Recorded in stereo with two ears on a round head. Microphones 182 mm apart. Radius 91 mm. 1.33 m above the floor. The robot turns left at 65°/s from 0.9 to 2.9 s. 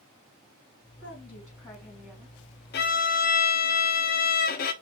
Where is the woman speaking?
70° left, 3 m; by 2.4 s 20° right, 3 m.